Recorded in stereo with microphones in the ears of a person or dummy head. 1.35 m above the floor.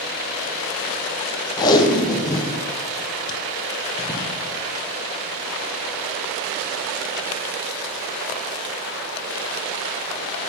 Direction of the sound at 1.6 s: 25° left (ahead or behind).